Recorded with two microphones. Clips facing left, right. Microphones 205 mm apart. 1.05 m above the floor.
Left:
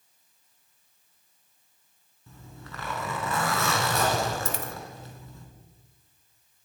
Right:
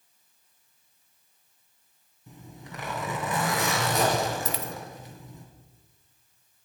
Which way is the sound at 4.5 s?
50° left (ahead or behind).